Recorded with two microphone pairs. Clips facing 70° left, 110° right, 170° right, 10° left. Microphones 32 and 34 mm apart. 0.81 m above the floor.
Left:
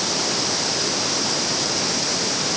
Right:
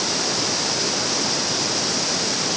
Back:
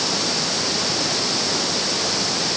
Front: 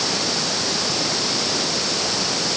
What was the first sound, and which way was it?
Only background noise.